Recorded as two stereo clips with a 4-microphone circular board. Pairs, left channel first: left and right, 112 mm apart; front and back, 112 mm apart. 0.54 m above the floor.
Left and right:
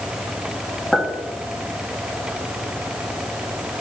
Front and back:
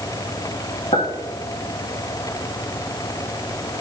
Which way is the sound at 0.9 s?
5° left.